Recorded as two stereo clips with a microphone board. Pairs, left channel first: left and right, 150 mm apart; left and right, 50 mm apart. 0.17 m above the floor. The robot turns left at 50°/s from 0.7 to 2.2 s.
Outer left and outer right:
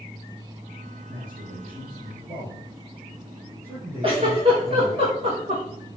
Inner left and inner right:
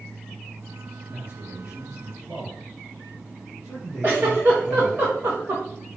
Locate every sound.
1.1 s a man speaking: 100° right, 5.5 m; by 5.0 s 155° right, 5.5 m
4.0 s a giggle: 35° right (ahead or behind), 4.5 m